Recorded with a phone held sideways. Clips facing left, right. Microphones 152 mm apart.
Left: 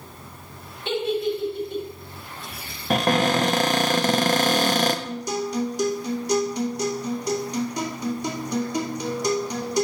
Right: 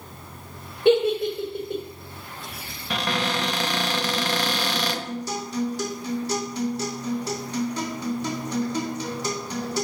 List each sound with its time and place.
0.8 s a giggle: 60° right (ahead or behind), 4 m
2.9 s a cupboard door: 45° left (ahead or behind), 0.7 m
5.0 s a guitar: 15° left (ahead or behind), 1.9 m